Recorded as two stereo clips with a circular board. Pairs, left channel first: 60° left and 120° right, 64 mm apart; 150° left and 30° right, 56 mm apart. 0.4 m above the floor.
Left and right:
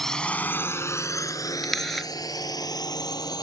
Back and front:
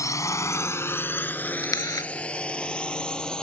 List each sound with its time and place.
0.0 s a drone: 145° left; by 3.4 s 75° left
1.6 s a camera shutter: 150° left